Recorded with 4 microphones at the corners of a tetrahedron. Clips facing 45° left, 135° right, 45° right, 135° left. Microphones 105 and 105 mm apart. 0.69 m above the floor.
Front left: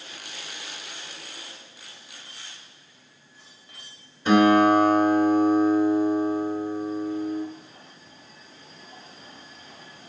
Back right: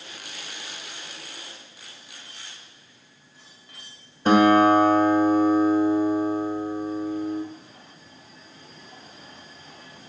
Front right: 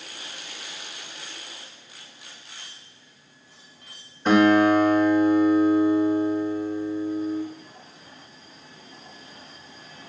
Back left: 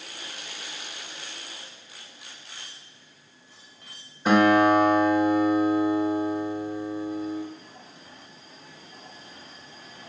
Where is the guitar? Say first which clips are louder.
Back right 1 dB, front right 1 dB; 140° right, 0.5 m.